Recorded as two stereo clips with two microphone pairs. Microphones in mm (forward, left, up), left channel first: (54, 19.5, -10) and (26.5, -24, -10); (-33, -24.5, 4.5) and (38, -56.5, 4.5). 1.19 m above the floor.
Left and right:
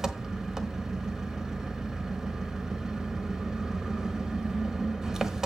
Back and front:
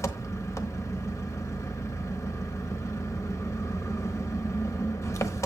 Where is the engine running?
165° left, 1.1 m.